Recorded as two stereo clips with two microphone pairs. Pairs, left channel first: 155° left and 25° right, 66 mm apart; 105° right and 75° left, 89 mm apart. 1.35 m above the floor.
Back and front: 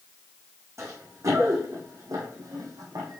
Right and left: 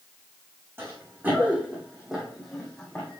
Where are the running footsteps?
15° left, 4 m; by 3.2 s 30° right, 3 m.